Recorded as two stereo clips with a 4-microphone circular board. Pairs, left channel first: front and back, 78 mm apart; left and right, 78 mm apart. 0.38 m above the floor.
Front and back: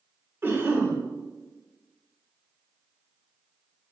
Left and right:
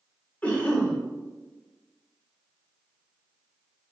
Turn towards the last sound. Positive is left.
turn(degrees=145)